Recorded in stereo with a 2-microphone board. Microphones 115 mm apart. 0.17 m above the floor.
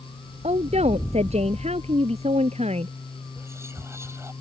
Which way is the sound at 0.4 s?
65° right (ahead or behind).